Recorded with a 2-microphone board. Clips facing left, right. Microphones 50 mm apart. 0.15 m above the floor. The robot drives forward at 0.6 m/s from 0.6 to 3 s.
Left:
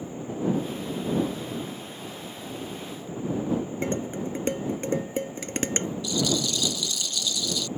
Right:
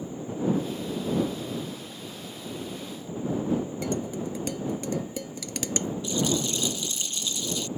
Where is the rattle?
30° right (ahead or behind).